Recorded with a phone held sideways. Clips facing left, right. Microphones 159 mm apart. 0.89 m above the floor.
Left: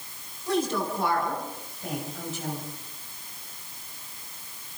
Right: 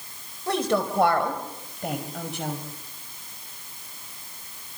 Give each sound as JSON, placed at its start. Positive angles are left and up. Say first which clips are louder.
{"t": 0.5, "sound": "a woman speaking", "louder": "right 2 dB", "side_deg": -75, "distance_m": 5.0}